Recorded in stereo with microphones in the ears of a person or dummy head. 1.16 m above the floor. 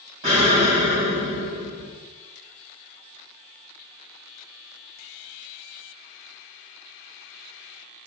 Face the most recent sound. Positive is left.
turn(degrees=-30)  # may be behind; listen again after turning